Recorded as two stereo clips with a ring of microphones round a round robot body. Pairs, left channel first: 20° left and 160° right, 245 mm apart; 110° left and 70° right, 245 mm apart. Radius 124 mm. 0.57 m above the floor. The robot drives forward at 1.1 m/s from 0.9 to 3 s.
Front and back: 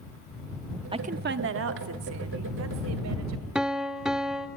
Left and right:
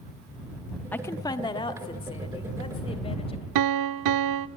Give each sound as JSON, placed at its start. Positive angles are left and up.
{"t": 0.9, "sound": "a woman speaking", "azimuth_deg": 180, "distance_m": 0.7}
{"t": 3.5, "sound": "a piano", "azimuth_deg": -70, "distance_m": 0.6}